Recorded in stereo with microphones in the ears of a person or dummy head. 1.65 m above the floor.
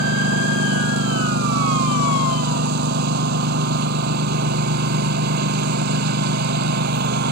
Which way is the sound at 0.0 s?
65° right (ahead or behind).